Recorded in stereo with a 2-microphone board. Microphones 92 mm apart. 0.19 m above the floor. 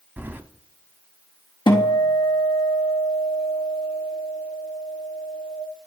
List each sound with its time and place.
0.2 s keys jangling: 20° right (ahead or behind), 0.8 m
1.7 s a guitar: 65° left (ahead or behind), 1.8 m